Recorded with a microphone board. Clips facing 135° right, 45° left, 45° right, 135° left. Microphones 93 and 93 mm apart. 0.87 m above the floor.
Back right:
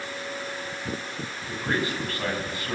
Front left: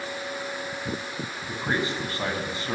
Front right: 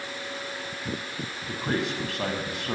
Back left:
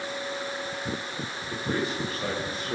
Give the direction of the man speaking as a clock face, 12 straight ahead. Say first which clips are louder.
Even, front right 1 dB; 1 o'clock.